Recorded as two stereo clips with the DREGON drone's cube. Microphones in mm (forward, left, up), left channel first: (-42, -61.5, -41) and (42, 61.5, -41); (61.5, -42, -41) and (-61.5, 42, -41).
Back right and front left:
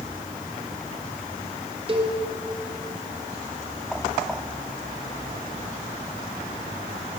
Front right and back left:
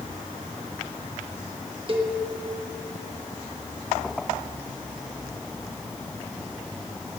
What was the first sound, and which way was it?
A cowbell, 100° left.